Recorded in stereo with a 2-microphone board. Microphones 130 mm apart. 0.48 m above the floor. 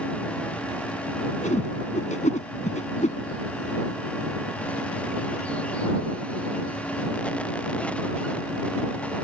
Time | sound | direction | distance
1.4 | a whoosh | 75° left (ahead or behind) | ?